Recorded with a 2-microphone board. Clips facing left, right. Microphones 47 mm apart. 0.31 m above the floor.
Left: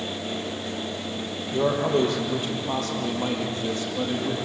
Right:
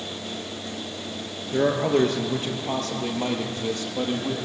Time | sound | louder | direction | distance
1.5 | a man speaking | right 1 dB | 50° right (ahead or behind) | 4.5 m